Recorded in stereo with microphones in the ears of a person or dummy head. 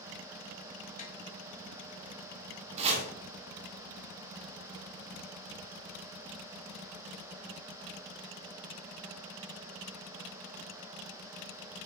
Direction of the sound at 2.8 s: 30° right (ahead or behind).